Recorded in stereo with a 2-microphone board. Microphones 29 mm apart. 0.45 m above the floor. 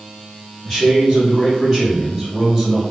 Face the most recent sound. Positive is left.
turn(degrees=5)  # may be behind; listen again after turning